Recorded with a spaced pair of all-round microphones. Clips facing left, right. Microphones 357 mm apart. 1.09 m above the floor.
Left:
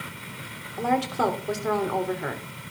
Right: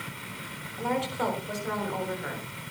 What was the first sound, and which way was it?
A woman speaking, 80° left.